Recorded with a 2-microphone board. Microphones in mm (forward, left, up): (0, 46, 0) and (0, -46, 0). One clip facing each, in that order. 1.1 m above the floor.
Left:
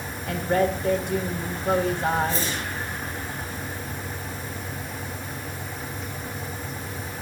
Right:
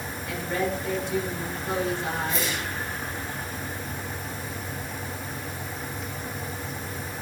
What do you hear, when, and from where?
0.3 s a woman speaking: 50° left (ahead or behind), 4.5 m
2.3 s a whoosh: 30° left (ahead or behind), 7 m